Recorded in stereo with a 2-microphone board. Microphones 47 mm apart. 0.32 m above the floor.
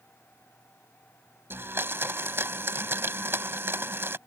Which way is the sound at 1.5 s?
55° right (ahead or behind).